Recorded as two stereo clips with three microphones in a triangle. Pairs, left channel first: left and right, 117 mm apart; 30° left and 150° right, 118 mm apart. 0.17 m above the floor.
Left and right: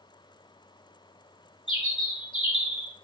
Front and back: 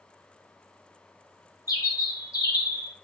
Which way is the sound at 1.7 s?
80° left.